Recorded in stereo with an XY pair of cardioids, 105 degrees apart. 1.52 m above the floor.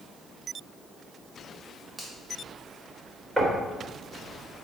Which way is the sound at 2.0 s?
15° right.